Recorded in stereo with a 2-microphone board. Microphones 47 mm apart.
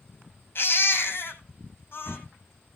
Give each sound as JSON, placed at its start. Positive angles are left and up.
{"t": 0.6, "sound": "a baby crying", "side_deg": 50, "distance_m": 3.5}